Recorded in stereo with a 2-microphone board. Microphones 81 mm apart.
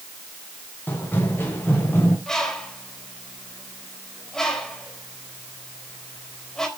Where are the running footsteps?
20° left (ahead or behind), 5 m; by 2.2 s 25° left (ahead or behind), 6 m.